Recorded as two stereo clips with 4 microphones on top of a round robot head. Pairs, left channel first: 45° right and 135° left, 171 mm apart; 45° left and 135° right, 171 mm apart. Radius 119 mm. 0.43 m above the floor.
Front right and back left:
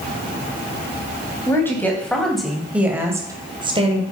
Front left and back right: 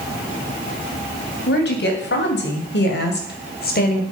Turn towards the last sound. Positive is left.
turn(degrees=80)